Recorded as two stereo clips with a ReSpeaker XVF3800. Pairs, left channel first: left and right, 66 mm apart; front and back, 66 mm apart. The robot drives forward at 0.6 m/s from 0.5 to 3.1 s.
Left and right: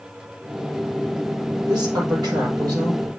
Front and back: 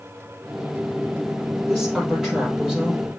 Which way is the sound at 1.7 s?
95° right.